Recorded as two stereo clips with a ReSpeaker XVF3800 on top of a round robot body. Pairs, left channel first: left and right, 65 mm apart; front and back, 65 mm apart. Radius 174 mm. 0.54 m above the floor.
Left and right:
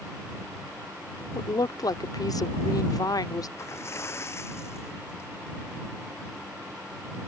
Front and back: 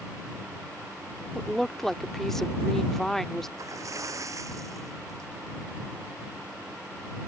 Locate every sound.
1.4 s a woman speaking: 85° left
3.6 s a splash: 140° left